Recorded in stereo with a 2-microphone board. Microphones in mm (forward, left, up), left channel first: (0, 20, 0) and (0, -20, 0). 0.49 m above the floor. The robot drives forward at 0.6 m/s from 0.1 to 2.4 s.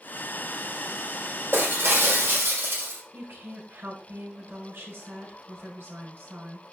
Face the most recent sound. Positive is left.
turn(degrees=-75)  # may be behind; listen again after turning